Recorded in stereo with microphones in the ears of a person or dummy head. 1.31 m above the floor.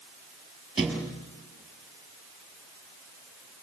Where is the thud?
Centre (ahead or behind), 5.5 m.